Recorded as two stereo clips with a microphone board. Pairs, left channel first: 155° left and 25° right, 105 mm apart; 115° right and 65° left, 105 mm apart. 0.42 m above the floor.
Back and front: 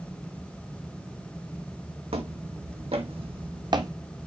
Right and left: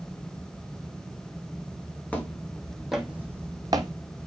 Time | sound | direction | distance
2.1 | footsteps | 35° right | 1.4 m